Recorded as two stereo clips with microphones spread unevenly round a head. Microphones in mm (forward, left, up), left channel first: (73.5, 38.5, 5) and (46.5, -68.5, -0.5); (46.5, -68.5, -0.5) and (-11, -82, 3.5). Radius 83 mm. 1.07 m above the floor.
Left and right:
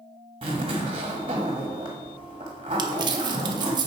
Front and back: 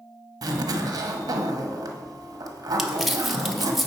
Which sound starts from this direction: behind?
A zipper, at 0.4 s.